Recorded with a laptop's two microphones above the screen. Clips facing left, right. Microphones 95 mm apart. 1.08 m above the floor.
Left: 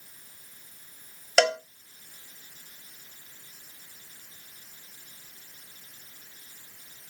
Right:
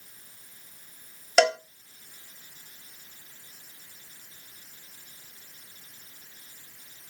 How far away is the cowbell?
About 0.5 m.